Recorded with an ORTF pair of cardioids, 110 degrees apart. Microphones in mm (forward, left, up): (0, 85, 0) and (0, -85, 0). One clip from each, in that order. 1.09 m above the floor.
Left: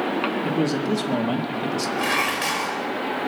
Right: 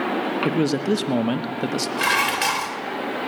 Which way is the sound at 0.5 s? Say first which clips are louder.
Right 2 dB; 30° right.